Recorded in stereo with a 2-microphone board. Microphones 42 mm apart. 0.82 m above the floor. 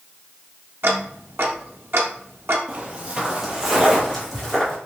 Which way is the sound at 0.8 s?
65° right (ahead or behind).